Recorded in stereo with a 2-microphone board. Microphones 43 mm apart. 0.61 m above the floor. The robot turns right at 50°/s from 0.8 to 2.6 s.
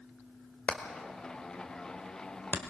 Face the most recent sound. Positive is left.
turn(degrees=55)  # may be behind; listen again after turning